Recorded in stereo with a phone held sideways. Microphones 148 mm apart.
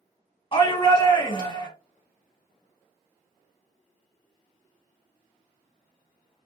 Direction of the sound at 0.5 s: 35° left (ahead or behind).